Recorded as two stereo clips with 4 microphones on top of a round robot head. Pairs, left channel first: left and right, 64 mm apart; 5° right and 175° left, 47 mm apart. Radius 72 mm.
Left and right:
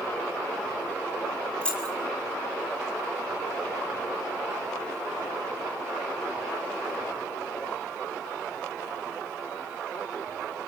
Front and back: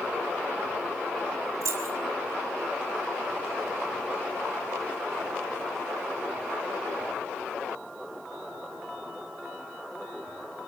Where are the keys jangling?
165° left, 6 m.